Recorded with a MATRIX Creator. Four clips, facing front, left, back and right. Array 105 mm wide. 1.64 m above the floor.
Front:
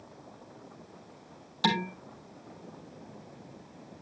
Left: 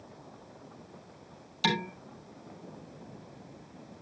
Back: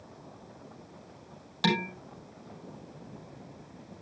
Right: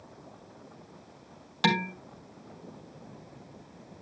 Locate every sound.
1.6 s dishes clattering: 105° right, 5.5 m